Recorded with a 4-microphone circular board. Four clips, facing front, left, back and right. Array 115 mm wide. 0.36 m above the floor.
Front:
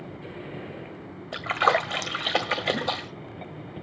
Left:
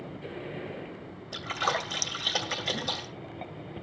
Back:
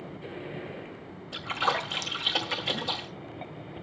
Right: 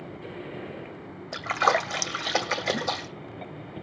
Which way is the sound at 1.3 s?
35° right.